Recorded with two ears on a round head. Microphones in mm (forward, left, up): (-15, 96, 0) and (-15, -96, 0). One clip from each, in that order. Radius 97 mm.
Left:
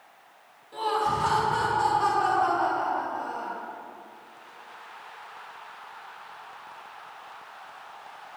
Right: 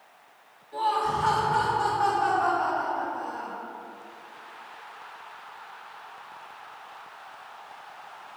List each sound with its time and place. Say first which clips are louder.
0.7 s laughter: right 1 dB; 30° left (ahead or behind), 1.5 m; by 3.6 s 50° left (ahead or behind), 2.5 m